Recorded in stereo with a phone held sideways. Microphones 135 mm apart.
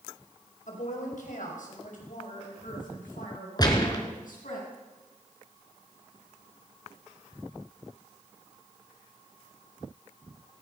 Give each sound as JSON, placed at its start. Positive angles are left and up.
{"t": 0.7, "sound": "a woman speaking", "side_deg": 65, "distance_m": 5.0}
{"t": 3.6, "sound": "a gunshot", "side_deg": 30, "distance_m": 2.5}